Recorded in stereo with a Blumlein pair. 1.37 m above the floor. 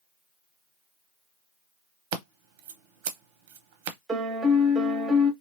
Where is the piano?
15° right, 0.7 m.